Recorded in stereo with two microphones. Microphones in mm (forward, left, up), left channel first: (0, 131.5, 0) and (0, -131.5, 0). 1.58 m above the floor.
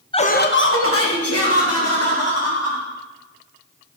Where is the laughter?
20° left (ahead or behind), 0.6 m; by 2.8 s 70° left (ahead or behind), 3.5 m.